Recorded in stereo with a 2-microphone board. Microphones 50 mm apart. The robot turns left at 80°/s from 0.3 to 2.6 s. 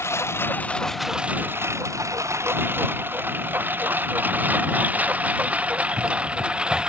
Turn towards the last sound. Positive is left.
turn(degrees=-15)  # may be behind; listen again after turning